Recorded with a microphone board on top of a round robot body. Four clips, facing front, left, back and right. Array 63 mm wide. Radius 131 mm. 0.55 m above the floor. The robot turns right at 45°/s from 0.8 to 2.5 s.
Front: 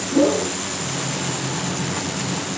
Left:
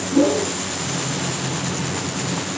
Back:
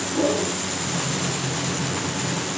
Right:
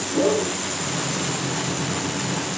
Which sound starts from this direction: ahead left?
A whoosh, at 0.1 s.